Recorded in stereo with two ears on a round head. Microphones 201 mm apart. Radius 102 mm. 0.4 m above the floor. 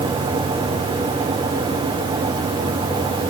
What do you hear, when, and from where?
Only background noise.